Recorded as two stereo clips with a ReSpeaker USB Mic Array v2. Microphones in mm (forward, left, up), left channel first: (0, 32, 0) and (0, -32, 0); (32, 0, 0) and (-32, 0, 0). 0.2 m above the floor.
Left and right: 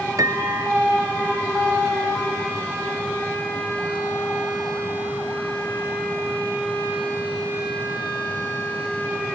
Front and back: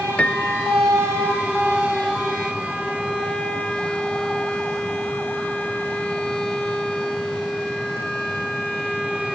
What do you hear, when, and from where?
0.2 s a piano: 70° right